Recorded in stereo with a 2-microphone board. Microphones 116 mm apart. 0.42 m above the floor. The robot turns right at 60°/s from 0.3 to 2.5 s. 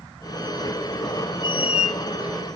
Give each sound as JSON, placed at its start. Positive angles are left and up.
{"t": 1.4, "sound": "a squeak", "azimuth_deg": 45, "distance_m": 0.6}